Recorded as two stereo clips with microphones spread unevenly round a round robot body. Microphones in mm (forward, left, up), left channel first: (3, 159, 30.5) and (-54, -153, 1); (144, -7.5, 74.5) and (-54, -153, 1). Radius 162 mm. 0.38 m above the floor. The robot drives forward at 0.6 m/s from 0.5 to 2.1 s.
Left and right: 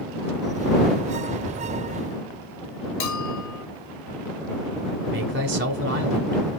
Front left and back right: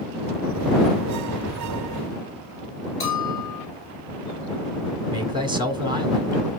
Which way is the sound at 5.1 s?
110° right.